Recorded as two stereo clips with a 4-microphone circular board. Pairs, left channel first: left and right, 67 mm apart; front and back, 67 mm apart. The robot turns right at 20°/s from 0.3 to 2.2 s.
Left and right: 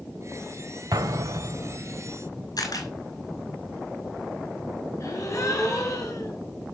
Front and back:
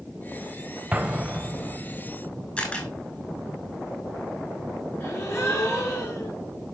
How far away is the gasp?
About 7 m.